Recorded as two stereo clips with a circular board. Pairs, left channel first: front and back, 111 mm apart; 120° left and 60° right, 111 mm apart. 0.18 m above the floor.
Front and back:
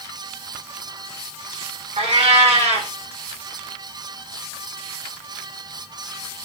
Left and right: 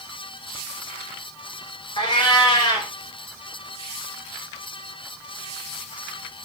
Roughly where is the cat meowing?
Behind.